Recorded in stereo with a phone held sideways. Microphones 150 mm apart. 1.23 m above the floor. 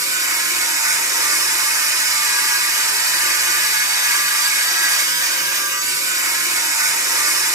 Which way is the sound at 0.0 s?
20° right (ahead or behind).